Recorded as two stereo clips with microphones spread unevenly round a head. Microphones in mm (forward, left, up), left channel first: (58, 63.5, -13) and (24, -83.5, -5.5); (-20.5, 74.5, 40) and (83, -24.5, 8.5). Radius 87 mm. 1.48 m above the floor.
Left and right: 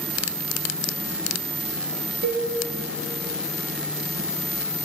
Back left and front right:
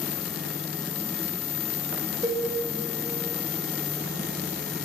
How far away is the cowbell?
About 2.0 m.